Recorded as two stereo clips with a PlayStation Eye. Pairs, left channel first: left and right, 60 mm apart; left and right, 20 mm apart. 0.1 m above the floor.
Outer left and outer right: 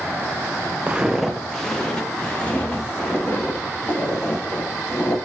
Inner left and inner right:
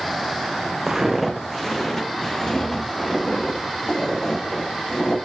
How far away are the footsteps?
About 0.7 m.